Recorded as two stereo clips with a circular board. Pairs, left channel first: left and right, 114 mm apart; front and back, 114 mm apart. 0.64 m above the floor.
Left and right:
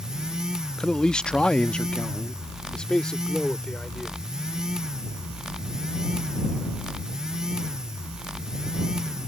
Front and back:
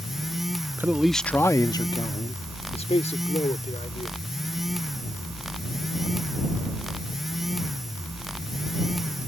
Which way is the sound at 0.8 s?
165° left.